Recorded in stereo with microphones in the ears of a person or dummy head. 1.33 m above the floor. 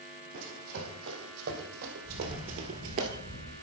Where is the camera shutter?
5° left (ahead or behind), 2.5 m.